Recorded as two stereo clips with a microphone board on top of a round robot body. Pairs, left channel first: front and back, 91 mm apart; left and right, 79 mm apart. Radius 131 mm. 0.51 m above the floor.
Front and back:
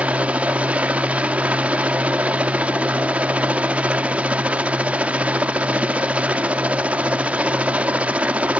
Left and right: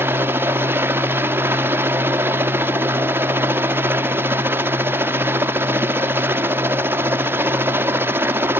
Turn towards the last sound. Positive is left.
turn(degrees=-115)